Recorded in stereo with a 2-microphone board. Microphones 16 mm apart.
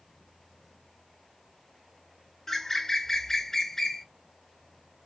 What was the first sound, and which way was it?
A bird, 30° left (ahead or behind).